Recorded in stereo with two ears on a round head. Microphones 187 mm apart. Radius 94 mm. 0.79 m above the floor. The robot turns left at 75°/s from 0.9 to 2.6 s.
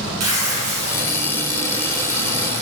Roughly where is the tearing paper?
Right.